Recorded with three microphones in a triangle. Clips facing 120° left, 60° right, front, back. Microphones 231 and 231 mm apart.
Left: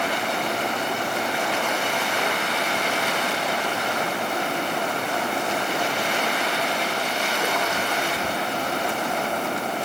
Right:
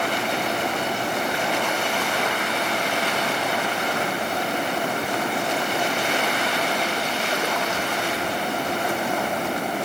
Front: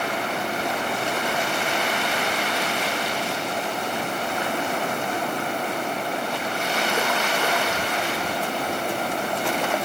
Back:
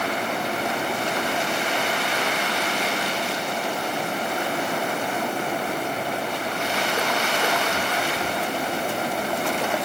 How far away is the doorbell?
I don't hear a doorbell.